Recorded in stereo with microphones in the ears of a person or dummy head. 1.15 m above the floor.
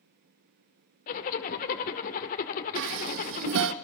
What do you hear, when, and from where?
1.1 s a zipper: 40° left (ahead or behind), 1.7 m
2.8 s dishes clattering: 70° right (ahead or behind), 1.0 m